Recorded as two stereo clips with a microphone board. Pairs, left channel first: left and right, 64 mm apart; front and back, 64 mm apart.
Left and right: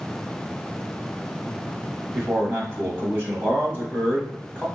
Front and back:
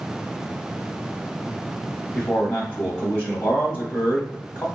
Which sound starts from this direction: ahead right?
A man speaking, at 2.1 s.